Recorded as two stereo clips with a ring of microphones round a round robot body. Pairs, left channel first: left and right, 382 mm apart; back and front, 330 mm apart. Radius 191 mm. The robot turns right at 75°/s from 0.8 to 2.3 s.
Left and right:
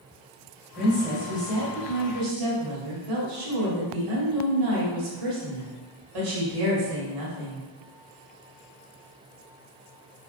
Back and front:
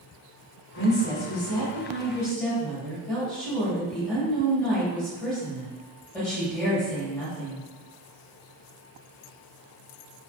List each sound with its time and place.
0.8 s a woman speaking: 155° left, 1.7 m; by 7.6 s 95° right, 1.7 m